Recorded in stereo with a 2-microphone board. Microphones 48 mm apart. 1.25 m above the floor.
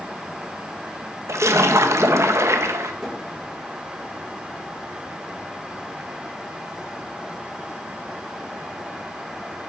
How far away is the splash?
About 1.3 m.